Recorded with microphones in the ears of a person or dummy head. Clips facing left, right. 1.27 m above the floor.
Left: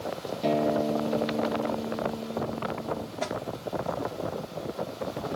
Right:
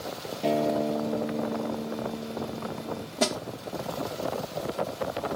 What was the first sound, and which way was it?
A guitar, centre (ahead or behind).